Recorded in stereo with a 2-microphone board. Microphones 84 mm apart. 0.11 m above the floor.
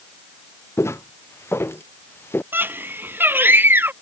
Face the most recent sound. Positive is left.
turn(degrees=-25)  # may be behind; listen again after turning